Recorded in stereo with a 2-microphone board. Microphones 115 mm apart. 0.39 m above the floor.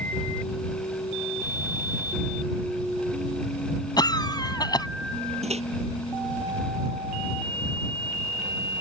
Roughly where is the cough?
Left.